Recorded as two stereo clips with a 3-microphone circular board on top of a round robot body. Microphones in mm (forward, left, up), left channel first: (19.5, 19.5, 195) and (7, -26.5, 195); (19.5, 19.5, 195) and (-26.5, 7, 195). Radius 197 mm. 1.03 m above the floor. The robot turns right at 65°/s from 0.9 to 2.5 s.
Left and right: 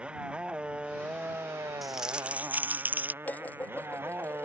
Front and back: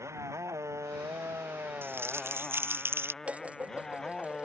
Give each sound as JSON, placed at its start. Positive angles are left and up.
{"t": 0.0, "sound": "a motorcycle", "azimuth_deg": -175}
{"t": 1.8, "sound": "crumpling", "azimuth_deg": 165}
{"t": 3.2, "sound": "dishes clattering", "azimuth_deg": 130}